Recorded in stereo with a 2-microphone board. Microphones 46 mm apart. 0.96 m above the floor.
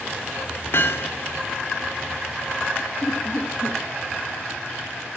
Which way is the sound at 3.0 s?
60° left (ahead or behind).